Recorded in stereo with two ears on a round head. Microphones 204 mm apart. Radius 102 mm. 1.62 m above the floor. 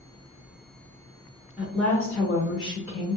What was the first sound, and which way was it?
A woman speaking, 5° right (ahead or behind).